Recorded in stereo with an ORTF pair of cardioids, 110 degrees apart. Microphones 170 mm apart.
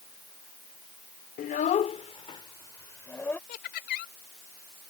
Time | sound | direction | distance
1.4 | a child speaking | 55° left | ?
3.5 | laughter | 70° left | ?